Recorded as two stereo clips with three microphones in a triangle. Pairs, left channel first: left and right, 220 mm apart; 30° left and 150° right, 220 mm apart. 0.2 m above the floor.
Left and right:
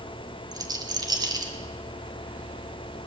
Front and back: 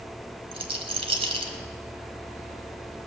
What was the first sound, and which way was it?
A rattle, 135° right.